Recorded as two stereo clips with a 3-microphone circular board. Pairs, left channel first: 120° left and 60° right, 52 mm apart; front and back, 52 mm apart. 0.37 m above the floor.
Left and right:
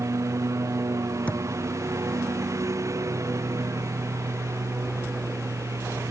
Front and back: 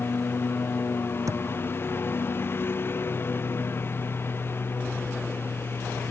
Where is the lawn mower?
45° right.